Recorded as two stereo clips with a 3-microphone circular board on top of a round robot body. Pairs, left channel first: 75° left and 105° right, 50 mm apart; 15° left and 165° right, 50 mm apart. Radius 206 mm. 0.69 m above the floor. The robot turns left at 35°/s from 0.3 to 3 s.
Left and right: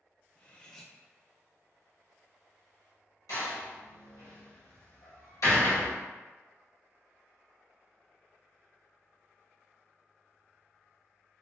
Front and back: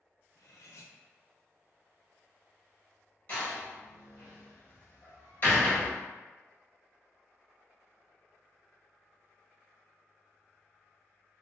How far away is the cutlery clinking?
About 0.5 m.